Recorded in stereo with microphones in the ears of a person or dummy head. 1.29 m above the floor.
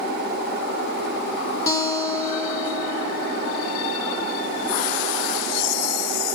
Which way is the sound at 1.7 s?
20° left (ahead or behind).